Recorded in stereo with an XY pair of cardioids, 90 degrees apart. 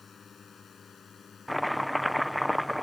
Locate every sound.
0.0 s a drone: 40° left; by 2.8 s 45° left
1.5 s chopping: straight ahead